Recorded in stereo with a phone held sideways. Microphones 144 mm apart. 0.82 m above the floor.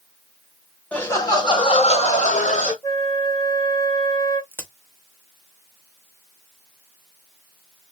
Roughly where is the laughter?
Centre.